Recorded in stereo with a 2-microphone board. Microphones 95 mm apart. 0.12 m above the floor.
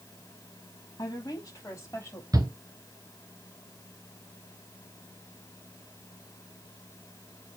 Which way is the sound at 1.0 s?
40° left (ahead or behind).